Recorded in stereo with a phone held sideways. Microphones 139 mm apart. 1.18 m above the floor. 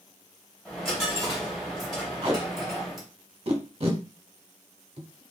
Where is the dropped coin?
5° right (ahead or behind), 2.5 m.